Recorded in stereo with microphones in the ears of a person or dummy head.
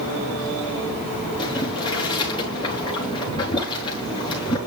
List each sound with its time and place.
1.4 s boiling: 30° left (ahead or behind), 4 m